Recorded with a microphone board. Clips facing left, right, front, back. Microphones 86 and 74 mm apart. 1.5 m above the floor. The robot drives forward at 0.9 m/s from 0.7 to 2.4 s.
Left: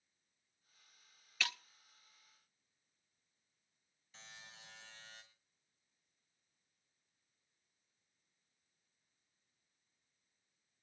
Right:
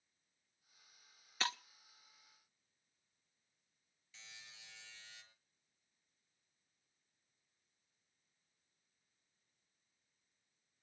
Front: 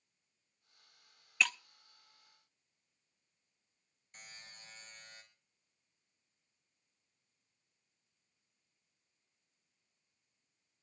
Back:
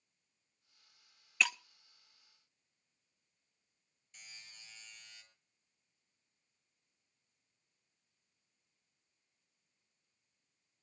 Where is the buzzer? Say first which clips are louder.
Left 3 dB, front 3 dB; 40° left, 7 m.